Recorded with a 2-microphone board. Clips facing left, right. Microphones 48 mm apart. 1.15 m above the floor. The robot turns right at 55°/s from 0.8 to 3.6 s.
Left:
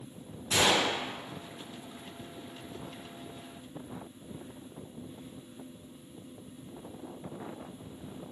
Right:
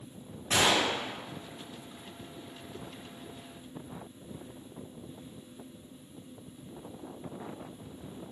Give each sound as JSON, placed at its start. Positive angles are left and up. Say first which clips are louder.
{"t": 0.5, "sound": "a gunshot", "louder": "even", "side_deg": -60, "distance_m": 1.7}